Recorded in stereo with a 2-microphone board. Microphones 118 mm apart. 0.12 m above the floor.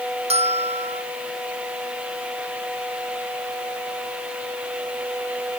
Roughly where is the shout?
I don't hear a shout.